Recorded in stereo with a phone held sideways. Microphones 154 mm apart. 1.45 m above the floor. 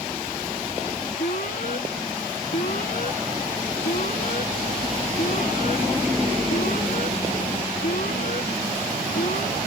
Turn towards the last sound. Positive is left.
turn(degrees=70)  # may be behind; listen again after turning